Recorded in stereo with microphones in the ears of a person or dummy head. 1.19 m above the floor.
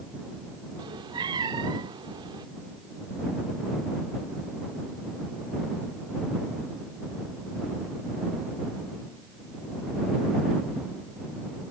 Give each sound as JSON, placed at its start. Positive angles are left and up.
{"t": 0.8, "sound": "a cat meowing", "side_deg": -25}